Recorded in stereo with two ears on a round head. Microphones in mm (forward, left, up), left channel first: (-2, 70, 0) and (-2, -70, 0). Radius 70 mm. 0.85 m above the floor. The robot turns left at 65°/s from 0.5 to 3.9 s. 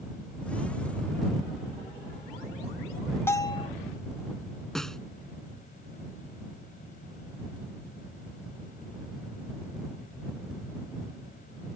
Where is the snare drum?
5° left (ahead or behind).